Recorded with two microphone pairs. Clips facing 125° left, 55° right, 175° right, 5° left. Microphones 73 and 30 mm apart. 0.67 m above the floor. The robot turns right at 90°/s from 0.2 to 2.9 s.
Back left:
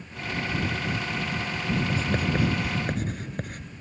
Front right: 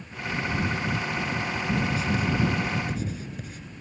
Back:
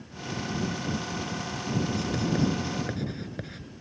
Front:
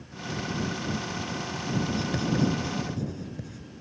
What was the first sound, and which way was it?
Writing, 65° left.